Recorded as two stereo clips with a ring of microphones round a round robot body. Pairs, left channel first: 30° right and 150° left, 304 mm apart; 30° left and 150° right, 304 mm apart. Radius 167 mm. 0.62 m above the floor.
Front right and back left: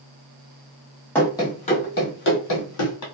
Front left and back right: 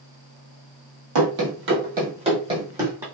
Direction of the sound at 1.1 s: 115° right.